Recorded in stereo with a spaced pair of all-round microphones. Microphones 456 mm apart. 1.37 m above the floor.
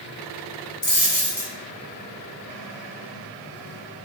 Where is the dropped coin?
60° left (ahead or behind), 3 m.